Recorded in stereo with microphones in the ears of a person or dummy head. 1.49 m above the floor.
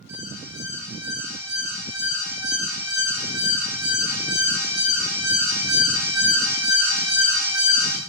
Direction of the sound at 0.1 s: 20° right (ahead or behind).